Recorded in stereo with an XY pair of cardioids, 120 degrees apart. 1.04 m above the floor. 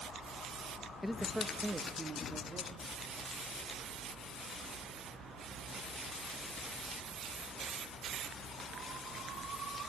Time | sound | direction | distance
1.0 | a man speaking | 15° left | 0.8 m